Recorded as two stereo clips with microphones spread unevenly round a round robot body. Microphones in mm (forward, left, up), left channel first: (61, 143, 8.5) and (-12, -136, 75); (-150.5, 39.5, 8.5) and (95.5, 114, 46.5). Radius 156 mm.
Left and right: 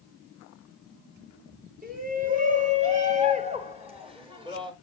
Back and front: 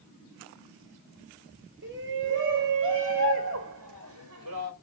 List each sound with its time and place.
1.8 s a shout: 40° right, 4.5 m; by 4.7 s 25° right, 3.5 m